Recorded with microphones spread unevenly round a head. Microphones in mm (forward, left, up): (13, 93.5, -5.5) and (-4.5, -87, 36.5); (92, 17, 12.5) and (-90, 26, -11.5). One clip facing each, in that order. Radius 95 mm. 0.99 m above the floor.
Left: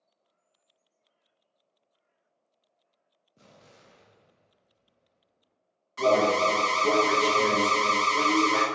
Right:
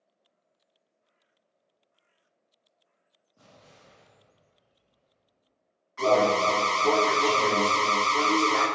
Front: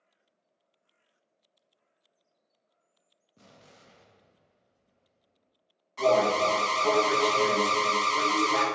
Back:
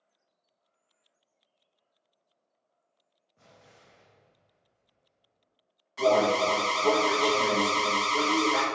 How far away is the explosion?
About 0.7 m.